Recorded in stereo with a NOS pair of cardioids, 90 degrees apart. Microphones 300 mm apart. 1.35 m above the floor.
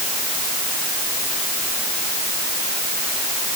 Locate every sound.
Only background noise.